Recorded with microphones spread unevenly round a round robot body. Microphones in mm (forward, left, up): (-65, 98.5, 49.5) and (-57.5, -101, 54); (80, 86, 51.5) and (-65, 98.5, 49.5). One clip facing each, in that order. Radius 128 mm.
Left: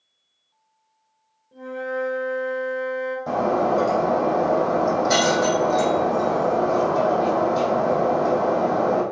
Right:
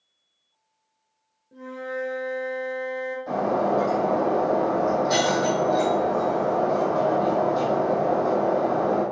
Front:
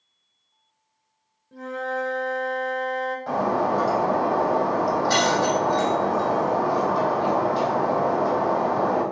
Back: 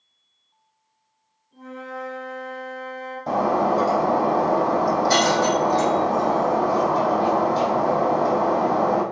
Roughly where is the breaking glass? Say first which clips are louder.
Left 2 dB, back 4 dB; behind left.